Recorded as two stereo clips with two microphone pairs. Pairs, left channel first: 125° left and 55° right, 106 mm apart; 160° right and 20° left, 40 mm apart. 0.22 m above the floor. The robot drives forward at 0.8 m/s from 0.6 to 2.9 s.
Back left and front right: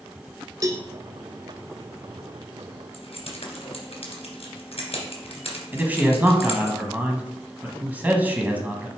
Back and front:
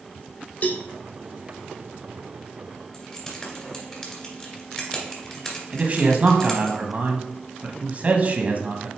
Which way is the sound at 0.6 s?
110° right.